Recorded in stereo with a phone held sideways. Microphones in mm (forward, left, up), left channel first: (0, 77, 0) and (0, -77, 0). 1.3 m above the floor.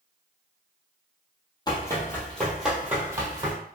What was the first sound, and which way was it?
Running footsteps, 25° left (ahead or behind).